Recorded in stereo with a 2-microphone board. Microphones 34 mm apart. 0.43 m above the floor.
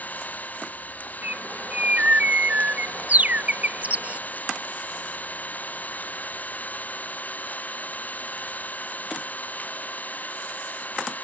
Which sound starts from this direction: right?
A bird, at 1.2 s.